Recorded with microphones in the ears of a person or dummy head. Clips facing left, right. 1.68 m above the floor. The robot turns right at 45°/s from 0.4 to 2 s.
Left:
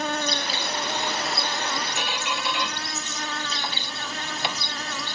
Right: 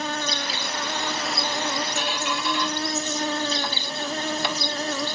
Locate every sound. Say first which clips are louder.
0.0 s an insect: left 1 dB; 145° left, 1.7 m; by 5.2 s 145° right, 1.7 m
2.0 s a squeak: right 2 dB; 15° left (ahead or behind), 1.0 m